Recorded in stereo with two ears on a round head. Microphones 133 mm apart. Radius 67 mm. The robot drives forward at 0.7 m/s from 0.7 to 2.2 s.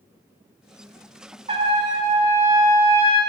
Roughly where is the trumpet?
Right.